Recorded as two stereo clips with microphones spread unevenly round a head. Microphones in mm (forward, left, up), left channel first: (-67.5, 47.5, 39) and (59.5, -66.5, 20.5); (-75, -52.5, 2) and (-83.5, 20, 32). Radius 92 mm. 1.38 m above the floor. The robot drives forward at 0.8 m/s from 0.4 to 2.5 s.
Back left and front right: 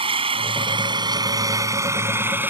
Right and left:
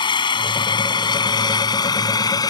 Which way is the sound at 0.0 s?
105° right.